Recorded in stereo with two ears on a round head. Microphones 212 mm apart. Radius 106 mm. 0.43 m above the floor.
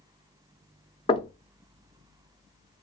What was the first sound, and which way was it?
Knocking, 25° left (ahead or behind).